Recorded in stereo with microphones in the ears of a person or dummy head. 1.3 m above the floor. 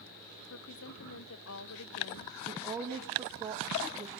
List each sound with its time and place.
0.5 s a woman speaking: 75° left (ahead or behind), 0.7 m
2.5 s a woman speaking: 10° right (ahead or behind), 1.3 m